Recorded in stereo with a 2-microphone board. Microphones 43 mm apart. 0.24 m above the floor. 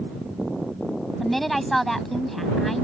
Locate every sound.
1.2 s a woman speaking: 5° left (ahead or behind)